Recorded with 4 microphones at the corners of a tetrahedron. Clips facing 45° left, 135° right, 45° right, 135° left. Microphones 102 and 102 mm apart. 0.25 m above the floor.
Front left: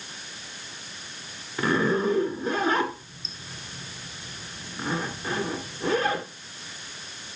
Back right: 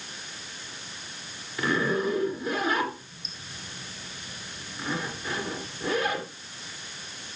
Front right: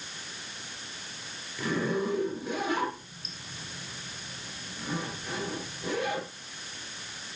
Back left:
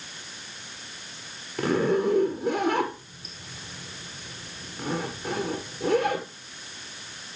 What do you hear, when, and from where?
1.6 s a zipper: 105° left, 2.0 m